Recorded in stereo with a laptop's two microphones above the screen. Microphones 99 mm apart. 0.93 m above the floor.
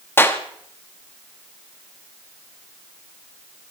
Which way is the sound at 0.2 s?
25° left (ahead or behind).